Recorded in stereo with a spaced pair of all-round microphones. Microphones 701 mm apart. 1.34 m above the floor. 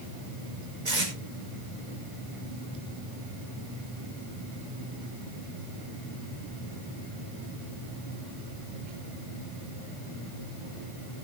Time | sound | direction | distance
0.8 | tape being pulled | 85° right | 5.5 m